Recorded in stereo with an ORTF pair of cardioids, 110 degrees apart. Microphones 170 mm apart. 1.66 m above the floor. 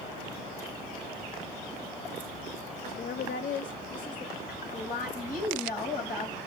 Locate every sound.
2.9 s a woman speaking: 55° left, 0.7 m
4.5 s a woman speaking: 50° left, 7.5 m